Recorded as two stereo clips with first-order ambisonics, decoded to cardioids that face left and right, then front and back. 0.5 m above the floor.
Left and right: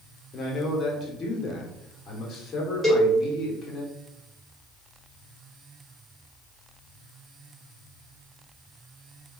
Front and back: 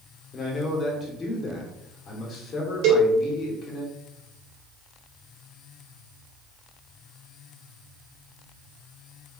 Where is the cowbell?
175° left, 1.7 m.